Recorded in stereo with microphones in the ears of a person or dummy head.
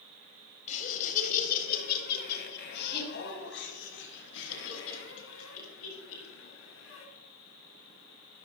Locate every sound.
0.7 s laughter: 40° left (ahead or behind), 4 m; by 7.0 s 80° left, 8.5 m